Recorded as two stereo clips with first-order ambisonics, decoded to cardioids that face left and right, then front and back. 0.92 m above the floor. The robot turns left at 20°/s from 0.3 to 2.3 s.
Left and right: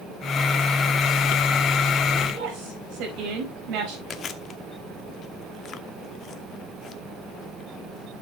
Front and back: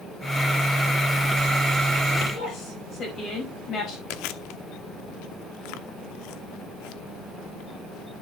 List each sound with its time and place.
2.3 s a woman speaking: 60° right, 4.5 m
4.1 s chewing: 20° left, 0.8 m